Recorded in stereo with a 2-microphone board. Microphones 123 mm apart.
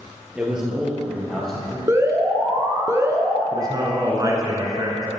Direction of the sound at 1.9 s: 25° right (ahead or behind).